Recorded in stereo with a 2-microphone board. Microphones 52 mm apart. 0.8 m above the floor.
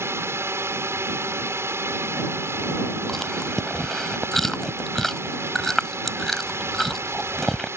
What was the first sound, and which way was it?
A drone, 60° right (ahead or behind).